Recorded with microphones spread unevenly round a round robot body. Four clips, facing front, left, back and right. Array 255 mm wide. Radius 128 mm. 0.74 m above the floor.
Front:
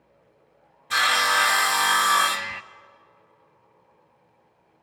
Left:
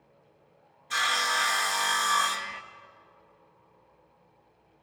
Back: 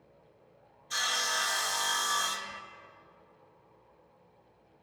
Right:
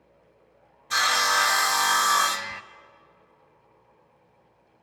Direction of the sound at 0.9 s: 20° right.